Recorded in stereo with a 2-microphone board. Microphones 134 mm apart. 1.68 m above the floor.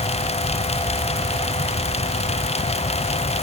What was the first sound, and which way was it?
Only background noise.